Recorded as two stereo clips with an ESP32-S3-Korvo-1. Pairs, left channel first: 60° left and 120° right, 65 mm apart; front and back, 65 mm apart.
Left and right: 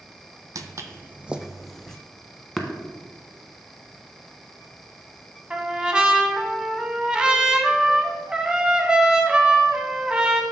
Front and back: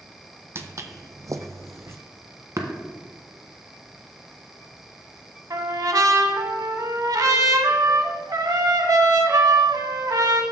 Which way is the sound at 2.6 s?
150° left.